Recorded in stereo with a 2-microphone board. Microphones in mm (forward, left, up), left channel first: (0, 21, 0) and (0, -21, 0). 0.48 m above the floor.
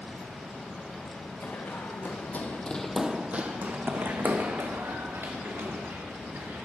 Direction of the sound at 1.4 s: 70° left (ahead or behind).